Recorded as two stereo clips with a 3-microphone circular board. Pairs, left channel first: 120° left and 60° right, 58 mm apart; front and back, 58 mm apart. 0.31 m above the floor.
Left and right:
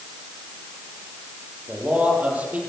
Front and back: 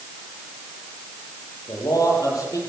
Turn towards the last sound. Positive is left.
turn(degrees=5)